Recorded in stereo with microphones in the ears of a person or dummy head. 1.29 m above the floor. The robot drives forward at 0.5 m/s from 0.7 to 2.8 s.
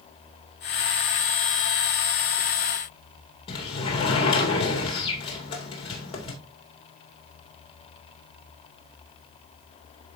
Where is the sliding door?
30° left (ahead or behind), 2 m.